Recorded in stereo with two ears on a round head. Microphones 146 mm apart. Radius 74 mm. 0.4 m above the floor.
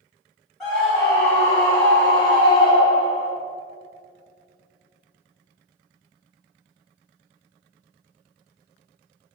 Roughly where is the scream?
Centre.